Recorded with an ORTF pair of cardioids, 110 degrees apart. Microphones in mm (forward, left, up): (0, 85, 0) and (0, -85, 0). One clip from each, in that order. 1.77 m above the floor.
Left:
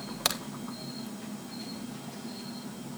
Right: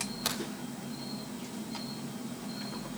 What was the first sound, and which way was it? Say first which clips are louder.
A crack: left 5 dB; 45° left.